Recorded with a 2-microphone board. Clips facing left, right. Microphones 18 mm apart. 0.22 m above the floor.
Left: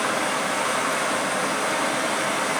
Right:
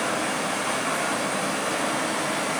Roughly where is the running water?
Left.